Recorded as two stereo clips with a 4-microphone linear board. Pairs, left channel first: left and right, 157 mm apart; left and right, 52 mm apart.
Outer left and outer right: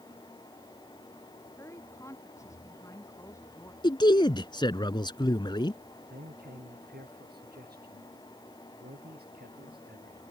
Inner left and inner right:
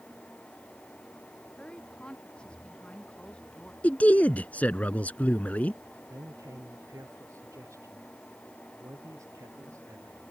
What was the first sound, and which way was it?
A woman speaking, 20° left (ahead or behind).